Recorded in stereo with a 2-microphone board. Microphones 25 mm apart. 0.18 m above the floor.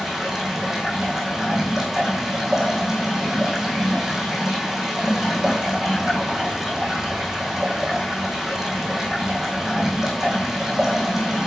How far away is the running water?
About 1.9 m.